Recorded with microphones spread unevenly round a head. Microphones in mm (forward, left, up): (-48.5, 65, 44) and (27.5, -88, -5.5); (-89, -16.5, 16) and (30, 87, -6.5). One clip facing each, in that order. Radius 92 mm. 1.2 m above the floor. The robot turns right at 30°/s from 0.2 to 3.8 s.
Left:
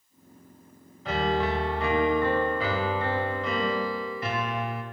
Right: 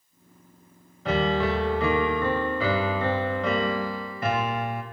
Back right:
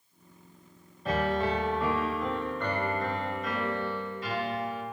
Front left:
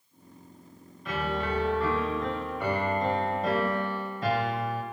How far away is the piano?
About 1.5 m.